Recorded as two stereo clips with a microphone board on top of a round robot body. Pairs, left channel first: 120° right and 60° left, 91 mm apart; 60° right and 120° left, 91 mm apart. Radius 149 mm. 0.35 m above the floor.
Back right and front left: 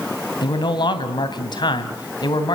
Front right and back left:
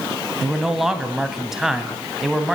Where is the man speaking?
155° right, 3 m.